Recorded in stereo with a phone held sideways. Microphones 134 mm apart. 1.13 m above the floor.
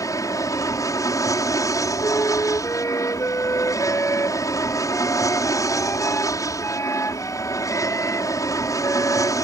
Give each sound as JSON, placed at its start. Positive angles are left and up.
{"t": 0.0, "sound": "an aircraft", "side_deg": 25}
{"t": 2.0, "sound": "a flute", "side_deg": 20}